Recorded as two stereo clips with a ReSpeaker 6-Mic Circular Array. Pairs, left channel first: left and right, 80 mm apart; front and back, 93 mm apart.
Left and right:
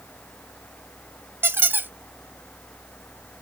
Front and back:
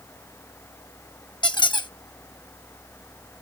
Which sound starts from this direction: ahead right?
A squeak, at 1.4 s.